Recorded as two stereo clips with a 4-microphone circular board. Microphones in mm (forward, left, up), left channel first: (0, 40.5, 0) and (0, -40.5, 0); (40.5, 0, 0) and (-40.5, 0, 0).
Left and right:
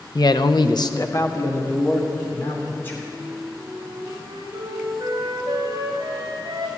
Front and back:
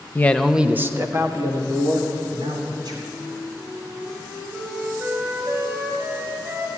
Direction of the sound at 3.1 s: 115° right.